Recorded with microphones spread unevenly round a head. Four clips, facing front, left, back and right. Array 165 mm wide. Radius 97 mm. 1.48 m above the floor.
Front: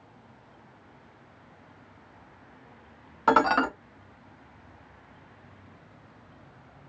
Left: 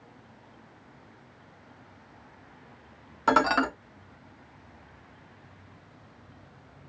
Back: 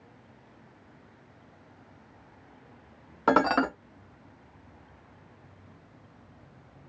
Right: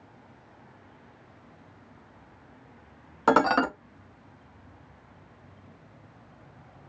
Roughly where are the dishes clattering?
Ahead right.